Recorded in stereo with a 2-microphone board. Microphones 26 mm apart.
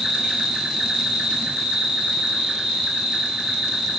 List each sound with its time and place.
0.0 s an insect: 35° right (ahead or behind), 1.2 m